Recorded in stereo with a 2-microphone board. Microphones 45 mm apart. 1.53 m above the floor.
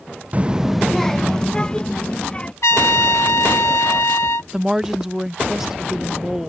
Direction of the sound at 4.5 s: 10° right (ahead or behind).